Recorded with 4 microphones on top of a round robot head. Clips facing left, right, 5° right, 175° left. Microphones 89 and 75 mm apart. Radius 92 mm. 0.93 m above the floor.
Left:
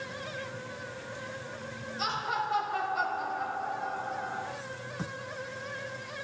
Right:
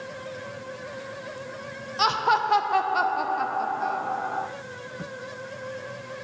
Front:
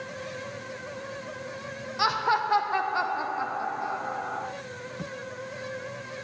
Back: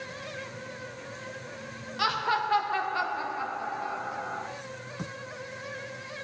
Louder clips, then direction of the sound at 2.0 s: Right 10 dB, front 3 dB; 80° right.